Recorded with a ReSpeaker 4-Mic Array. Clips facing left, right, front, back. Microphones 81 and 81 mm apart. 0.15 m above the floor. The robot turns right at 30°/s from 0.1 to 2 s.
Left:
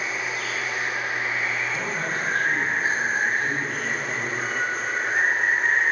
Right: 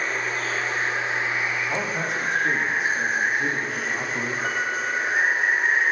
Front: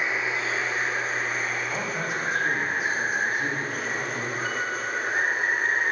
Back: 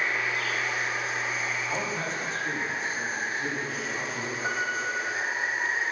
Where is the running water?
60° right, 1.9 m; by 5.9 s 5° right, 1.9 m.